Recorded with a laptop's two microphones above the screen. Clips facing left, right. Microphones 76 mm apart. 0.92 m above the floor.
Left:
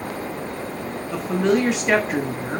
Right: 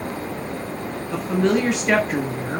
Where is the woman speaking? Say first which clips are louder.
Even; 5° left (ahead or behind), 1.4 m.